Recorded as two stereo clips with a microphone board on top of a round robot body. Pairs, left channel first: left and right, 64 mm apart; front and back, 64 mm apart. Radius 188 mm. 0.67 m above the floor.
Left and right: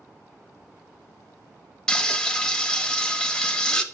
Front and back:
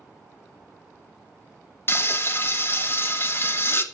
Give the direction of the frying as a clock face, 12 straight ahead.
11 o'clock.